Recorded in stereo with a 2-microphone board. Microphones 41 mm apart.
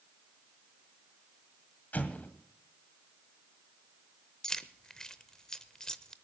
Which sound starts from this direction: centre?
Keys jangling, at 4.4 s.